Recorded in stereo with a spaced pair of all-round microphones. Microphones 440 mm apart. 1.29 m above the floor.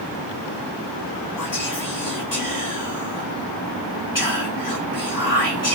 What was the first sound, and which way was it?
Whispering, 45° left (ahead or behind).